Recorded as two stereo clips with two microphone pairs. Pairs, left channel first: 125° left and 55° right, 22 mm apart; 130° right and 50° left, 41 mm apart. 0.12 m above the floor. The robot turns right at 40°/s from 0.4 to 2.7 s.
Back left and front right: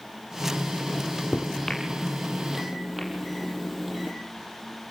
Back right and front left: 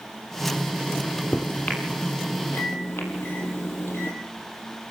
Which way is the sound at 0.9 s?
150° left.